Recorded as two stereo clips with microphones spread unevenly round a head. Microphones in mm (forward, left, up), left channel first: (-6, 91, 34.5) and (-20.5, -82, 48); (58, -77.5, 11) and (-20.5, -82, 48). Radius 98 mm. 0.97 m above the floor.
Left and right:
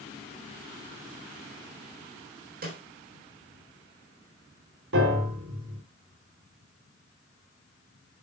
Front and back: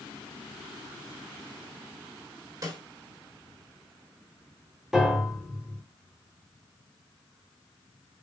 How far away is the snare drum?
About 3.5 m.